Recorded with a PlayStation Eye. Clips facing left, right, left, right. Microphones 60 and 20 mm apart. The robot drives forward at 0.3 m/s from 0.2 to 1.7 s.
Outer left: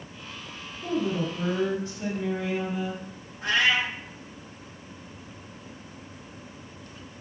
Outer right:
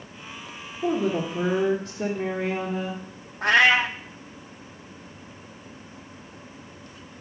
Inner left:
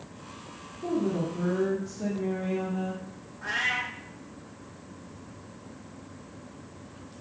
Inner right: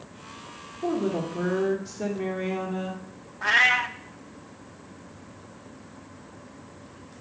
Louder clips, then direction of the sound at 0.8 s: Outer right 3 dB, inner right 2 dB; 70° right (ahead or behind).